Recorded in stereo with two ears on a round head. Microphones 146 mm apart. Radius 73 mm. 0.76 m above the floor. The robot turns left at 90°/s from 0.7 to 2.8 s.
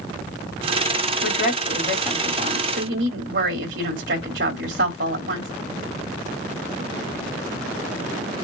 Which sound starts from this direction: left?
A woman speaking, at 1.2 s.